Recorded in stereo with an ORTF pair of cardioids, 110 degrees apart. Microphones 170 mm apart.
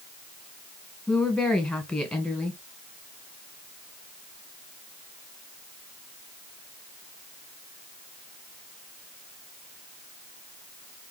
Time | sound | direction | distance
1.1 | a woman speaking | 5° left | 1.8 m